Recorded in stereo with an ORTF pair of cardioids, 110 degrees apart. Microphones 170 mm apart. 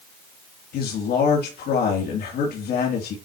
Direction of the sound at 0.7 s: 70° left.